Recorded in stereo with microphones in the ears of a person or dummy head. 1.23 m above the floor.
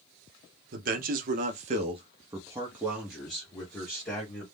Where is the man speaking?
45° right (ahead or behind), 0.9 m; by 4.4 s 15° left (ahead or behind), 1.5 m.